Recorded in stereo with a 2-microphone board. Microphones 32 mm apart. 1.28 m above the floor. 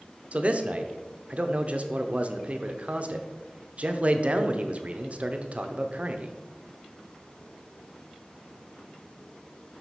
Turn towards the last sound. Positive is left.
turn(degrees=-40)  # may be behind; listen again after turning